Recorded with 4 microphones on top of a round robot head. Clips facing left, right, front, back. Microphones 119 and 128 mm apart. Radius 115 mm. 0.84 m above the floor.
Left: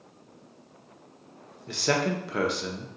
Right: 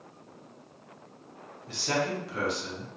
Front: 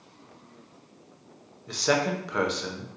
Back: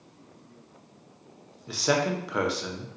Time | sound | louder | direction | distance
1.7 | a man speaking | left 3 dB, even | 95° left | 0.7 m